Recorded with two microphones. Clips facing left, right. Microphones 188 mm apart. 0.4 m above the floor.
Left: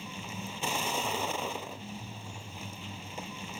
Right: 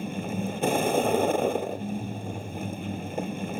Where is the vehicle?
55° right (ahead or behind).